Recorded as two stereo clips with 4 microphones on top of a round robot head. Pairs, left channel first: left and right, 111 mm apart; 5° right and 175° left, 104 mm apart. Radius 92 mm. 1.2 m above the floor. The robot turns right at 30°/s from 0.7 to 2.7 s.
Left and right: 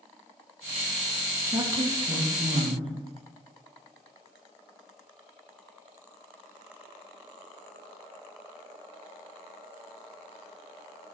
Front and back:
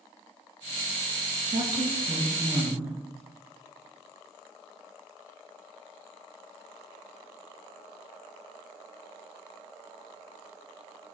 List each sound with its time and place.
1.5 s a woman speaking: 155° right, 1.8 m; by 2.9 s 120° right, 1.8 m